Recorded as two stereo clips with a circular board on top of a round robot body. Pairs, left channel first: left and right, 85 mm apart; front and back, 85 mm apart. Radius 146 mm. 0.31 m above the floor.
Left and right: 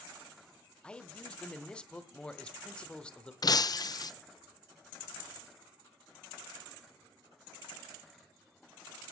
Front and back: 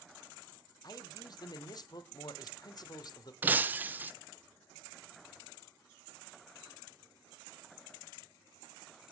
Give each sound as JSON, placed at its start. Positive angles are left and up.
{"t": 0.8, "sound": "a man speaking", "azimuth_deg": 15, "distance_m": 1.3}
{"t": 3.4, "sound": "breaking glass", "azimuth_deg": 115, "distance_m": 0.8}